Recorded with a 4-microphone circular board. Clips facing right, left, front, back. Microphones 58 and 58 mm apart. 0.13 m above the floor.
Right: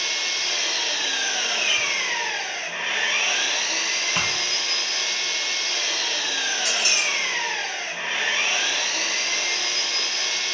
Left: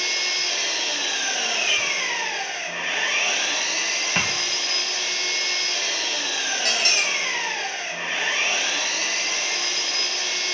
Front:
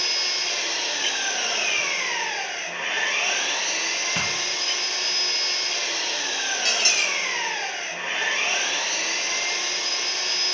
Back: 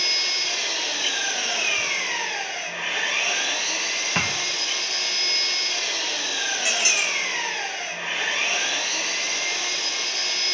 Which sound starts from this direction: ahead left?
An engine running, at 0.0 s.